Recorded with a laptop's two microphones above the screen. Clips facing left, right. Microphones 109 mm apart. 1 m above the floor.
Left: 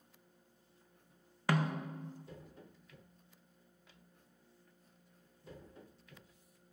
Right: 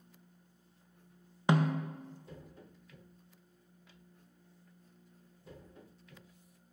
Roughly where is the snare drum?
Right.